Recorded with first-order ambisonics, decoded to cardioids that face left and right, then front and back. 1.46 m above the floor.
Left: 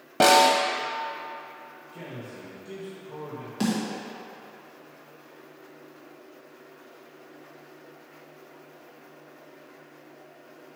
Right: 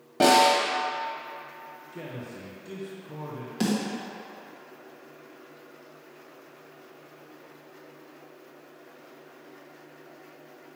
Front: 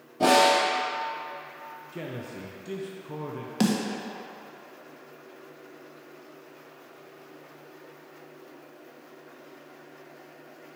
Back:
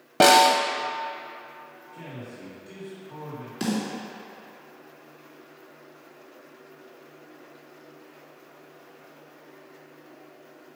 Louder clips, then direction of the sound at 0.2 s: Left 1 dB, back 4 dB; 160° left.